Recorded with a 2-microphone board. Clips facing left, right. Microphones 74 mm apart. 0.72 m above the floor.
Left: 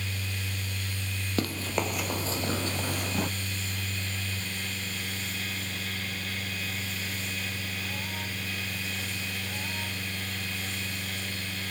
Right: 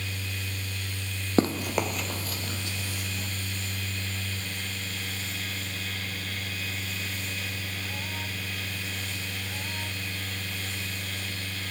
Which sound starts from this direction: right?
Running footsteps, at 1.4 s.